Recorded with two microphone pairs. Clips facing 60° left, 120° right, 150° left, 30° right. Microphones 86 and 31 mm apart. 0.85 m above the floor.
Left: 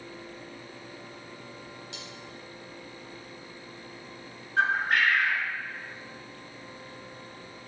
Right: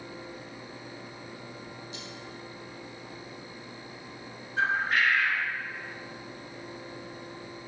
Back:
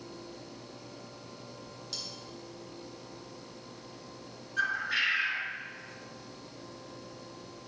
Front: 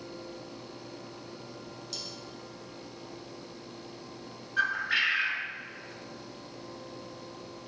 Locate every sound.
1.9 s cutlery clinking: 70° left, 3.5 m
4.6 s a bird: 35° left, 2 m